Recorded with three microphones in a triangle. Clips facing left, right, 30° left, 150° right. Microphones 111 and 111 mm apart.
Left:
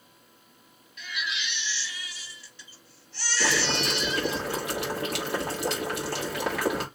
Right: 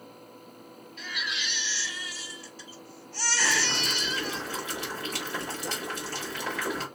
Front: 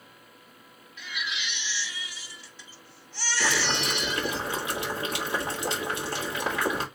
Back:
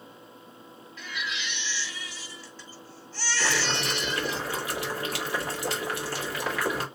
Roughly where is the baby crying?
Ahead right.